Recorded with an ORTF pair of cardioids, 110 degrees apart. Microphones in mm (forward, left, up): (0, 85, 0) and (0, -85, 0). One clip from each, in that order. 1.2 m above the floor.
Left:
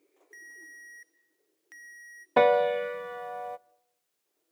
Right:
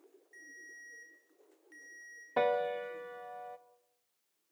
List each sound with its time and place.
0.3 s a ringtone: 65° left, 1.8 m
2.4 s a piano: 40° left, 0.5 m